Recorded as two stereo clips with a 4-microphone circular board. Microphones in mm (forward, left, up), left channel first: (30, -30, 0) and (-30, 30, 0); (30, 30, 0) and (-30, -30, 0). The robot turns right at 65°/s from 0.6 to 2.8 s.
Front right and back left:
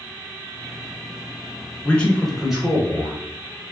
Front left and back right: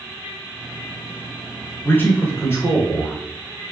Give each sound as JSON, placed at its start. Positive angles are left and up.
{"t": 1.8, "sound": "a man speaking", "azimuth_deg": 5, "distance_m": 1.1}